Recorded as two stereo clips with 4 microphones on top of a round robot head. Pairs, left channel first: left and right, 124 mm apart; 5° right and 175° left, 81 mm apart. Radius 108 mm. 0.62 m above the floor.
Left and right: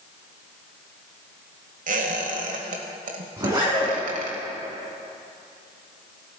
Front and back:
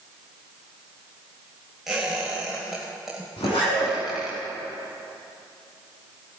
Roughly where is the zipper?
Ahead right.